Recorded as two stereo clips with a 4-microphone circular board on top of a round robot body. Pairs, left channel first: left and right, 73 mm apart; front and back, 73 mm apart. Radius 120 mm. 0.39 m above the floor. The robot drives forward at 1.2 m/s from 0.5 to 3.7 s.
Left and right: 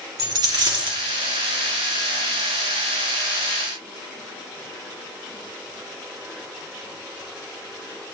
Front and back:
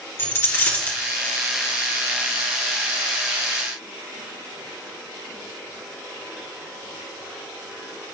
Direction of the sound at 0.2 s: 55° right.